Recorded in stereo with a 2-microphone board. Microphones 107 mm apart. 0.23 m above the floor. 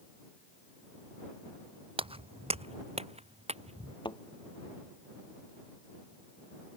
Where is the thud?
45° left (ahead or behind).